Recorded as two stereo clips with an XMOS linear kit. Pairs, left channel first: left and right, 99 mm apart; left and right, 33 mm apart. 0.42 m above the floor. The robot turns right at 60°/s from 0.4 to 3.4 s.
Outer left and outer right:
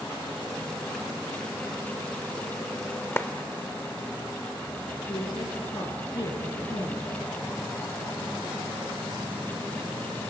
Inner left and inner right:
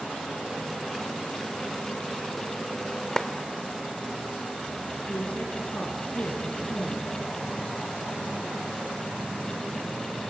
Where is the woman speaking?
50° left (ahead or behind), 5 m.